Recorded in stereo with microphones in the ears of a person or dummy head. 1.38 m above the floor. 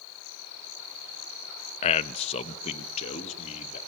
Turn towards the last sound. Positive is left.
turn(degrees=35)  # may be behind; listen again after turning